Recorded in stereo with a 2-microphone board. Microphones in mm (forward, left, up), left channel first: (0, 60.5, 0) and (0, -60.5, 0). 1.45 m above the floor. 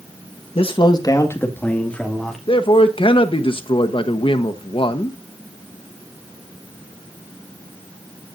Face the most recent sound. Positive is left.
turn(degrees=45)  # may be behind; listen again after turning